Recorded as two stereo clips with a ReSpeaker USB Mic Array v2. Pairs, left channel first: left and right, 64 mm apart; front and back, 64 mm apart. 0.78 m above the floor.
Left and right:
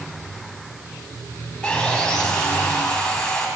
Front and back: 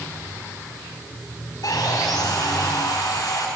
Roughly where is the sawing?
Ahead.